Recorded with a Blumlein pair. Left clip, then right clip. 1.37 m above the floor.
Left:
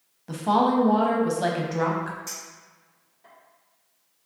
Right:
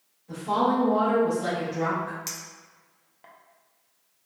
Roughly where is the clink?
Ahead right.